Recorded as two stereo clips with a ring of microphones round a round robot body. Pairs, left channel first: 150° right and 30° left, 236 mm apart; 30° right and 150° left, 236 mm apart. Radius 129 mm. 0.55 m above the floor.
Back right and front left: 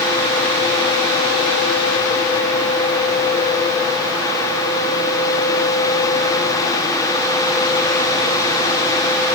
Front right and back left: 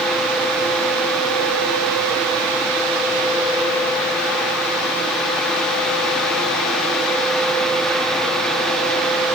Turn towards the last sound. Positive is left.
No sound to turn to.